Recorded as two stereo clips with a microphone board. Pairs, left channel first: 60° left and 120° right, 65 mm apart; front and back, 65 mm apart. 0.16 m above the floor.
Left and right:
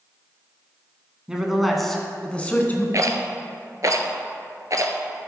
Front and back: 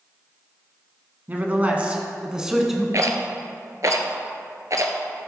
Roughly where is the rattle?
Behind right.